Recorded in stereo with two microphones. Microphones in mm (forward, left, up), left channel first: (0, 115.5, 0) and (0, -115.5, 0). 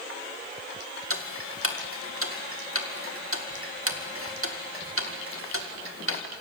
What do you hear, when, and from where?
1.1 s ticking: 60° right (ahead or behind), 2 m